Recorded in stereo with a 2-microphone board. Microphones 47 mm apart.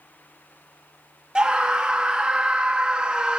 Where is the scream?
20° right (ahead or behind), 0.6 m.